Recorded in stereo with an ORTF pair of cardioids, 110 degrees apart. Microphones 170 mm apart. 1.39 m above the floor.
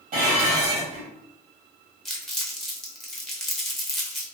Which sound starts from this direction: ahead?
Crumpling, at 2.0 s.